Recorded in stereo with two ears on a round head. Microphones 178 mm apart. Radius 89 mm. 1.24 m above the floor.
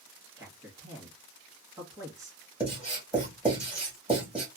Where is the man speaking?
15° right (ahead or behind), 1.6 m.